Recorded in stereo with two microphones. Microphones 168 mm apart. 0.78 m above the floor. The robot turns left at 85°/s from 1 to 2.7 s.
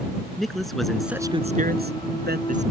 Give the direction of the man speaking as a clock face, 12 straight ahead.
12 o'clock.